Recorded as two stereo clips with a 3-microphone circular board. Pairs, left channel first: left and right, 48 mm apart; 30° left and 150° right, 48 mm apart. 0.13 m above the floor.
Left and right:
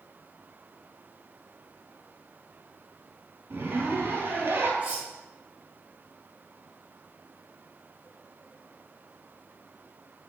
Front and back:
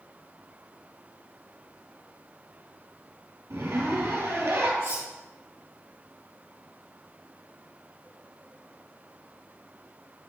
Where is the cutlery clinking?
150° right, 3 m.